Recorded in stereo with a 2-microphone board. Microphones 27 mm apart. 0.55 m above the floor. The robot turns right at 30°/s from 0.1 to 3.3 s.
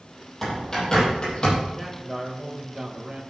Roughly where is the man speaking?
Behind.